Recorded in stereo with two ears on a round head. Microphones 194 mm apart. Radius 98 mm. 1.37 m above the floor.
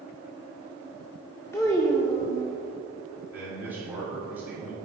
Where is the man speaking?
10° right (ahead or behind), 1.7 m.